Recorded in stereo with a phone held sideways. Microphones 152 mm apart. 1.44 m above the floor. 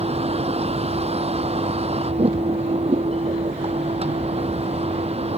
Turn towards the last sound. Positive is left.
turn(degrees=-45)  # may be behind; listen again after turning